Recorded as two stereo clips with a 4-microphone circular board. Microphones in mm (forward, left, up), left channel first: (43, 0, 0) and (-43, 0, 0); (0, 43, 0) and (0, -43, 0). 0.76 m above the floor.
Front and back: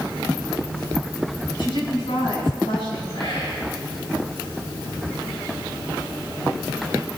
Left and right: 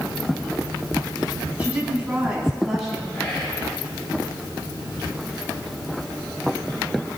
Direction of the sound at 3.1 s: 10° left.